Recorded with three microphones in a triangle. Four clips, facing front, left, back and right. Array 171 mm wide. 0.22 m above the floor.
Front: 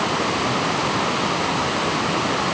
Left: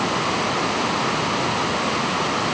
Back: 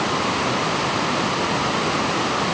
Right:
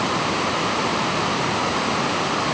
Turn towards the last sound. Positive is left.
No sound to turn to.